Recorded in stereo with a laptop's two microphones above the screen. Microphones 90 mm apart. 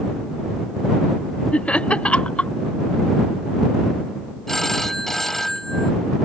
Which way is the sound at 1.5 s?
15° left (ahead or behind).